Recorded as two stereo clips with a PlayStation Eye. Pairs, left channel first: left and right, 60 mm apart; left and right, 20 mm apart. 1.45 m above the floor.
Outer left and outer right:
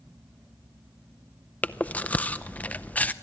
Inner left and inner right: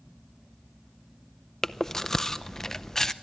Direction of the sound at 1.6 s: 25° left (ahead or behind).